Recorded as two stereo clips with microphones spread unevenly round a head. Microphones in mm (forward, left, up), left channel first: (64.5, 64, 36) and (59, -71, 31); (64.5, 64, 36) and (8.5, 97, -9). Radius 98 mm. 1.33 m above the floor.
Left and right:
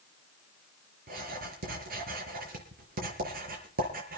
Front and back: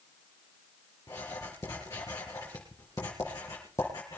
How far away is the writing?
About 5.5 m.